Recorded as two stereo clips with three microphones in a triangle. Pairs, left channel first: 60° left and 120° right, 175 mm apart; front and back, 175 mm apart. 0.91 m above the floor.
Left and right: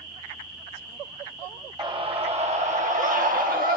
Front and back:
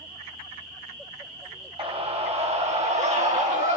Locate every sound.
1.8 s a scream: 160° right, 1.0 m; by 3.8 s 140° right, 1.8 m